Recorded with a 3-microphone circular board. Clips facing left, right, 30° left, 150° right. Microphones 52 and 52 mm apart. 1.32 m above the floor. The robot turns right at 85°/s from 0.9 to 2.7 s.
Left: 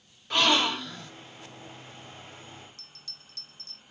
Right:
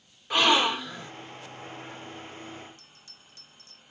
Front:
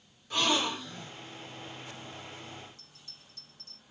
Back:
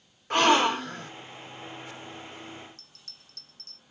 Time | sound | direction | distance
0.3 | a gasp | 170° right | 0.7 m
2.8 | a bell | 160° right | 0.8 m